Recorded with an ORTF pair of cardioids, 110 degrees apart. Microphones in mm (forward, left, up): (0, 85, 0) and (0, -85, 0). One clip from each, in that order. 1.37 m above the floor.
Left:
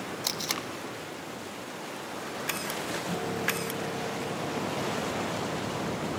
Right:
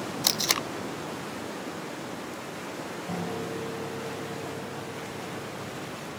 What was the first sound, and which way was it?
Tape being pulled, 30° right.